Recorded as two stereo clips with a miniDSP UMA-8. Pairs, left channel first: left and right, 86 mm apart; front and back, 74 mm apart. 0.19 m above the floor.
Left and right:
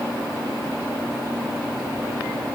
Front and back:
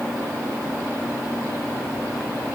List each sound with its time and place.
Only background noise.